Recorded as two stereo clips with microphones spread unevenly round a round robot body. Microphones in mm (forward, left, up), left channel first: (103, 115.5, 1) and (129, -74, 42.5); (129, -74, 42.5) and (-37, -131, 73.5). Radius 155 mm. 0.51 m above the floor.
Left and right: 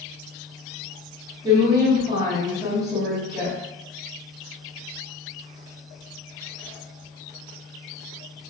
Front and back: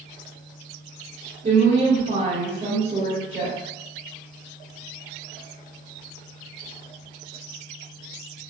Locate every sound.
1.4 s a woman speaking: 155° right, 1.3 m